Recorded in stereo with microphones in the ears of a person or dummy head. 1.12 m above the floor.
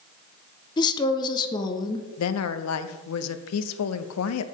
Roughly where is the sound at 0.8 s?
Centre.